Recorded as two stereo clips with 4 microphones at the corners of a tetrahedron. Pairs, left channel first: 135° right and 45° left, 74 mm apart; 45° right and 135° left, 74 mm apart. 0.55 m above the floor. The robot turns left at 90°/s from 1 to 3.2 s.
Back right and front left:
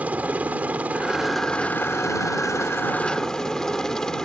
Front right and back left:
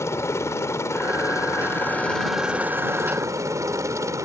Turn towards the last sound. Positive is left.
turn(degrees=145)